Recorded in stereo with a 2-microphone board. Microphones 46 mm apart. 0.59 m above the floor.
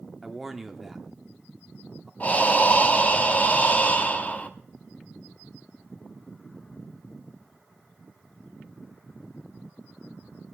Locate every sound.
0.2 s a man speaking: 5° right (ahead or behind), 1.0 m
2.2 s breathing: 35° left (ahead or behind), 0.9 m